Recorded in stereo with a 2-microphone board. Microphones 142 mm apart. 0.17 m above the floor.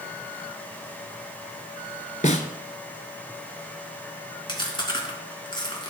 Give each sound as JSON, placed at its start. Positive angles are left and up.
{"t": 2.2, "sound": "a snare drum", "side_deg": 60, "distance_m": 1.0}
{"t": 4.5, "sound": "chewing", "side_deg": 35, "distance_m": 2.5}